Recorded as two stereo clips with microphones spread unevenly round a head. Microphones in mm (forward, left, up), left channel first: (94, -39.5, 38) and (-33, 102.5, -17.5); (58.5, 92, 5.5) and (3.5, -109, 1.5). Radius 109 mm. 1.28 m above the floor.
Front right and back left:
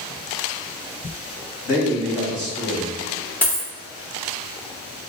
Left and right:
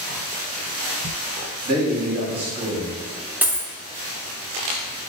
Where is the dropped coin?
30° right, 0.5 m.